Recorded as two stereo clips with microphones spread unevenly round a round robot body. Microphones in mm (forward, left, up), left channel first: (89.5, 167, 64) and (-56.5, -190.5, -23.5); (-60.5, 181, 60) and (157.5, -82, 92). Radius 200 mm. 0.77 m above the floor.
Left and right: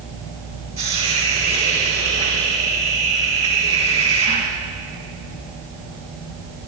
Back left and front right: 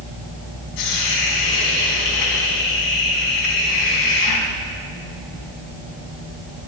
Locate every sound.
0.8 s a hiss: 165° left, 3.5 m